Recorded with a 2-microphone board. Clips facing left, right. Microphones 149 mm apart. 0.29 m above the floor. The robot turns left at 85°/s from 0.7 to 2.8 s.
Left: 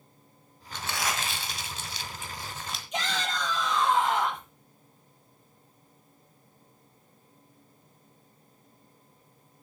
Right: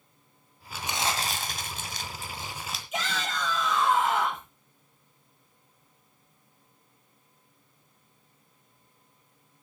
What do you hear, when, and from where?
0.7 s crumpling: 5° right, 1.9 m; by 2.8 s 175° left, 1.9 m
2.9 s a shout: 5° right (ahead or behind), 8.5 m